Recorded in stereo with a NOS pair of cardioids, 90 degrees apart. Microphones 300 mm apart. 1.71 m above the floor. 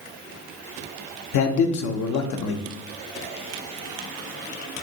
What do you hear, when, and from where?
1.3 s a man speaking: 70° left, 0.6 m